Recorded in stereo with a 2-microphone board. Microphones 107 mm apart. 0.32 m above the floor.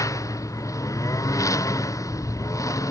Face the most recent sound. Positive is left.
turn(degrees=30)  # may be behind; listen again after turning